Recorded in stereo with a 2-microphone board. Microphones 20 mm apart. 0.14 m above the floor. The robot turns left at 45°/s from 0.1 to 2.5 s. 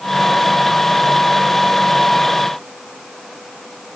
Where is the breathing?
No breathing in this recording.